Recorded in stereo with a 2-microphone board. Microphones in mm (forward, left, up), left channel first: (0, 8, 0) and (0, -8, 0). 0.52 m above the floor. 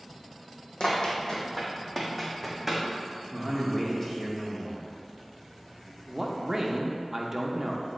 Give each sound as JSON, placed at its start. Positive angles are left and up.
{"t": 0.8, "sound": "running footsteps", "side_deg": 60, "distance_m": 1.6}
{"t": 3.3, "sound": "a man speaking", "side_deg": 15, "distance_m": 1.1}
{"t": 6.1, "sound": "a man speaking", "side_deg": -25, "distance_m": 0.7}